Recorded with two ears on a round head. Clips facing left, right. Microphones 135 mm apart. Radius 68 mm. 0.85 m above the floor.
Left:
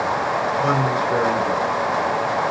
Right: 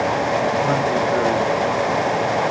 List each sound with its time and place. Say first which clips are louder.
0.6 s a man speaking: right 1 dB; 65° left (ahead or behind), 3.5 m